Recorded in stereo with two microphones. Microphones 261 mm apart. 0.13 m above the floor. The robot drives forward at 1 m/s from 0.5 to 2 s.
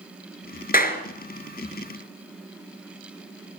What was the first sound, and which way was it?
A clap, 35° left (ahead or behind).